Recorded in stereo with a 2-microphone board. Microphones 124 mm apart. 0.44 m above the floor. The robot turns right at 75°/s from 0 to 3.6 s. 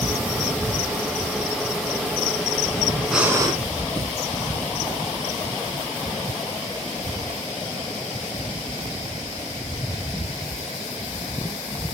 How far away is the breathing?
About 2.0 m.